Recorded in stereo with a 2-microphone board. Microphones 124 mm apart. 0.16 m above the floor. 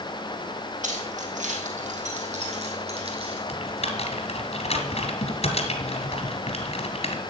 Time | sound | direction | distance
0.8 | keys jangling | 80° right | 3.5 m
3.5 | typing on a keyboard | 55° left (ahead or behind) | 2.5 m